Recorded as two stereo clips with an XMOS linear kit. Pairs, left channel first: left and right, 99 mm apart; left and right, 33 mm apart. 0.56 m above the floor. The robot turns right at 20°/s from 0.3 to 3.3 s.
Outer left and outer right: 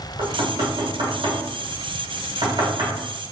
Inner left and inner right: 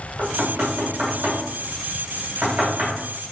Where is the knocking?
65° right (ahead or behind), 1.7 m; by 3.0 s 40° right (ahead or behind), 1.7 m.